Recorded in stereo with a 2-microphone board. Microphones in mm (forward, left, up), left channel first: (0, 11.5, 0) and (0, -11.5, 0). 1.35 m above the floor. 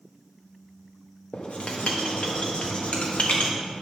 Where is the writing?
75° left (ahead or behind), 1.2 m.